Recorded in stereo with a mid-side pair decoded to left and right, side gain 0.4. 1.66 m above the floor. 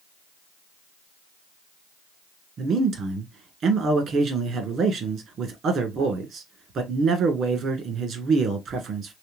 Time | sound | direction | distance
2.6 | a man speaking | 70° right | 1.6 m